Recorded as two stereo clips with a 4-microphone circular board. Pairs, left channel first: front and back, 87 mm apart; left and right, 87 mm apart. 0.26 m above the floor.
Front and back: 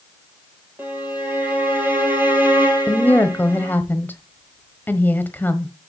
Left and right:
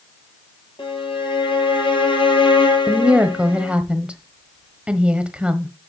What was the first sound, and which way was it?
A violin, 110° left.